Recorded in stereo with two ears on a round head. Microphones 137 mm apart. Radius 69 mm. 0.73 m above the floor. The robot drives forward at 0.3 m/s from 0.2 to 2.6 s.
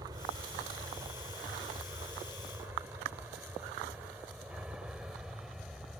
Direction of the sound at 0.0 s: 20° right (ahead or behind).